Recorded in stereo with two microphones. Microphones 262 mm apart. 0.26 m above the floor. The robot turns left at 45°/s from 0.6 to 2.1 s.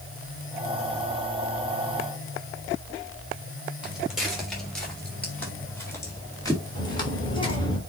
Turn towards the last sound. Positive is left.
turn(degrees=15)  # may be behind; listen again after turning